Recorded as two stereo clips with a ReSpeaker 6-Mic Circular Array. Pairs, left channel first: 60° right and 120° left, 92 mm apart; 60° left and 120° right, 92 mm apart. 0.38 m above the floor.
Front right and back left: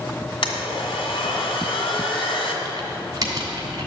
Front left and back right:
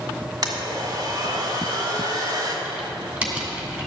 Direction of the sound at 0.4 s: 80° right.